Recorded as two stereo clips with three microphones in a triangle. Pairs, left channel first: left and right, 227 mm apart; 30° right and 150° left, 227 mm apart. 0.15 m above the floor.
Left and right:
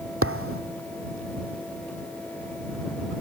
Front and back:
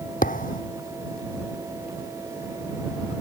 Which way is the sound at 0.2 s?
80° right.